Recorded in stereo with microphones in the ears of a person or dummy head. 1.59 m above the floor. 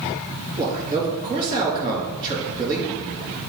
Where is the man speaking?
30° right (ahead or behind), 3 m.